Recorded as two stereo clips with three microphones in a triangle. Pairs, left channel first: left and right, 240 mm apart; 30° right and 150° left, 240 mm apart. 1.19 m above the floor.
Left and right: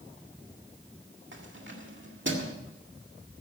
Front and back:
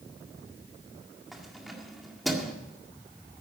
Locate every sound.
1.3 s keys jangling: 120° right, 1.9 m